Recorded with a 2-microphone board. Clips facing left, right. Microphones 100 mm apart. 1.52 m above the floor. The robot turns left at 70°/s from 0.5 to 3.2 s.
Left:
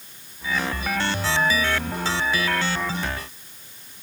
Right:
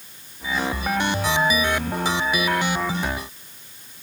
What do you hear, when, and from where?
Only background noise.